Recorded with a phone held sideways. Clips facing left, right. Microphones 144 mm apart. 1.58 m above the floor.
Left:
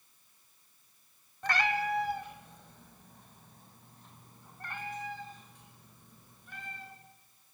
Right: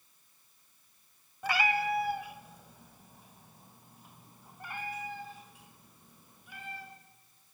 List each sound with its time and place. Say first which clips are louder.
1.4 s a cat meowing: right 1 dB; 5° right (ahead or behind), 1.4 m; by 6.9 s 10° right (ahead or behind), 4.5 m